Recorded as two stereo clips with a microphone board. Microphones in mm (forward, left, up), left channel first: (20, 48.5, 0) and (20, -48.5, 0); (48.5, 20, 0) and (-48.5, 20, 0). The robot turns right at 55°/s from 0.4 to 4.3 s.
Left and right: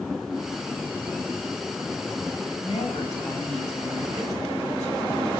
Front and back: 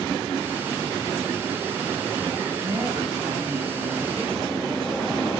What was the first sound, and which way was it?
A woman speaking, 115° left.